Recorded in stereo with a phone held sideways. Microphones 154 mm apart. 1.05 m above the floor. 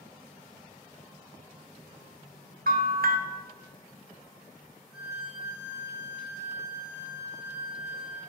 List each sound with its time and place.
2.7 s a bell: 75° right (ahead or behind), 0.5 m
4.9 s a violin: 25° right (ahead or behind), 1.8 m